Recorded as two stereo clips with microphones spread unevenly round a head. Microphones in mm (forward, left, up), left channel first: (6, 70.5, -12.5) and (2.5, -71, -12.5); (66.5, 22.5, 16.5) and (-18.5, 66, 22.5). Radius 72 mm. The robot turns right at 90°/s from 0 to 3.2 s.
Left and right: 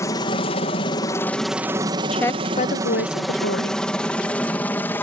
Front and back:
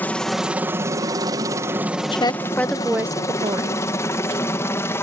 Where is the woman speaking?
Straight ahead; by 3.8 s 100° left.